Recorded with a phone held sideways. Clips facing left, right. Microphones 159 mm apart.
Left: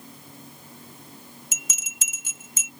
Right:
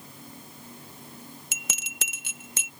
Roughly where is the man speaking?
I don't hear a man speaking.